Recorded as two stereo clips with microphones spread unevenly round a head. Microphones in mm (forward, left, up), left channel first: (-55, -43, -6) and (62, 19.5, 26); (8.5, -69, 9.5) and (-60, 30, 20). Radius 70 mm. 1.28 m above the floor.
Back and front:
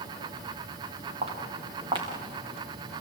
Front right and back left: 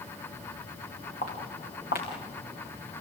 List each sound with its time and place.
1.2 s footsteps: 15° right, 5.5 m; by 3.0 s 45° right, 5 m